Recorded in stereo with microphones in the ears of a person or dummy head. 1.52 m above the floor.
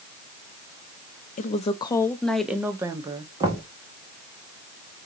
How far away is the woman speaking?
About 0.7 m.